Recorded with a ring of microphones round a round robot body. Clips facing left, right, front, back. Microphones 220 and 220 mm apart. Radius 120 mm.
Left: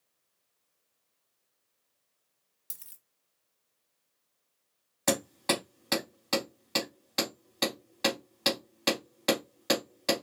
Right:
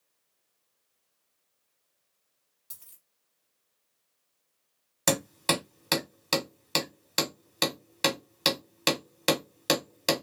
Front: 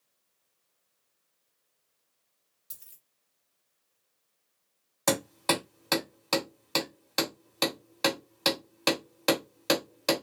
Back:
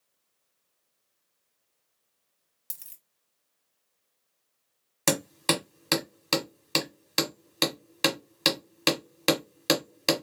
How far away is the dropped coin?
About 0.8 m.